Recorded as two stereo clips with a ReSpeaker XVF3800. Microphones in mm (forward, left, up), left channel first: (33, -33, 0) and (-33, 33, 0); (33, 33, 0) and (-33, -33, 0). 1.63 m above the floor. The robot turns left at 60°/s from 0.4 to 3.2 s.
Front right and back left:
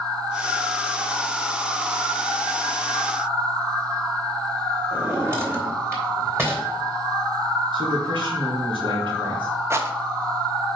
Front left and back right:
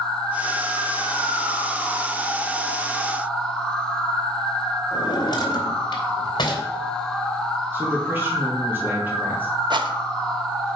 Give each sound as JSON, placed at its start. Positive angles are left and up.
{"t": 4.9, "sound": "a drawer", "azimuth_deg": 75, "distance_m": 2.5}
{"t": 7.7, "sound": "a man speaking", "azimuth_deg": 155, "distance_m": 3.0}
{"t": 9.7, "sound": "a rattle", "azimuth_deg": -165, "distance_m": 0.9}